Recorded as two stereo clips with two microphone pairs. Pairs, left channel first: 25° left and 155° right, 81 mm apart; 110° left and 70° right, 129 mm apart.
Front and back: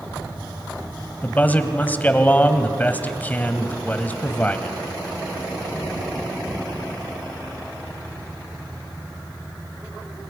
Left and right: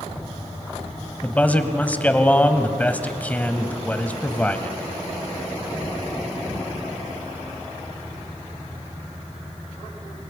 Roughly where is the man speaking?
Ahead left.